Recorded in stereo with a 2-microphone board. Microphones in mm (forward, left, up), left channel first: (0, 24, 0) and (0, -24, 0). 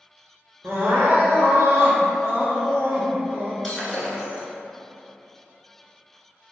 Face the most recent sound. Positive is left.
turn(degrees=5)  # may be behind; listen again after turning